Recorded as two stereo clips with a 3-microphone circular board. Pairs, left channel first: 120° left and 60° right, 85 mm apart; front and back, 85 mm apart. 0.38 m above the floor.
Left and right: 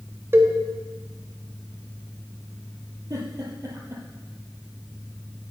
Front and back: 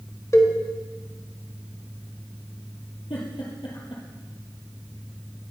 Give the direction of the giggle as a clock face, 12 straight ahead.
12 o'clock.